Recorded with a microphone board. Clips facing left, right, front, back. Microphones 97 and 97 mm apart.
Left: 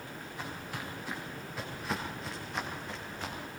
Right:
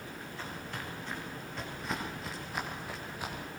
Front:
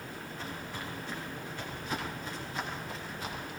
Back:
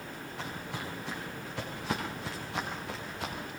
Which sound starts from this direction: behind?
Footsteps, at 0.4 s.